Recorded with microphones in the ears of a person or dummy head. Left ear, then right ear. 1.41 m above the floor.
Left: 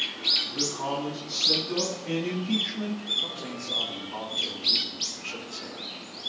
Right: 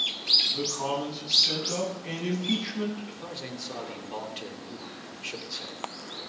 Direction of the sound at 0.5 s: 45° right (ahead or behind).